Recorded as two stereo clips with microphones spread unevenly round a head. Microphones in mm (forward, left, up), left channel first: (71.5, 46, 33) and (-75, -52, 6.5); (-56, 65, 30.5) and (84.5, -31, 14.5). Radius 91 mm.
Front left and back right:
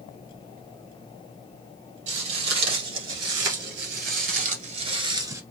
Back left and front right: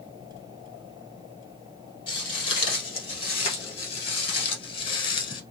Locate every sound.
2.1 s footsteps: 155° right, 2.5 m; by 5.4 s 140° left, 1.3 m